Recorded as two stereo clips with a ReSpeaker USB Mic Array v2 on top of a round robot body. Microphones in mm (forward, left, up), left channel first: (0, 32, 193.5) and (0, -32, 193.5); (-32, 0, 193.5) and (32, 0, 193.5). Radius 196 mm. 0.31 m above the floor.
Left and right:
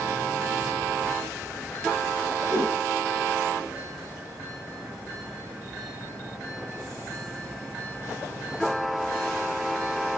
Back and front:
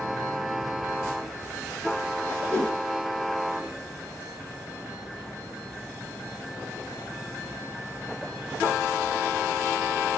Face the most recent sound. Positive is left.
turn(degrees=-115)